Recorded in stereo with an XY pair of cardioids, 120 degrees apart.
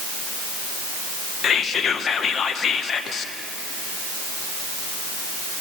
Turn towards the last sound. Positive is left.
turn(degrees=45)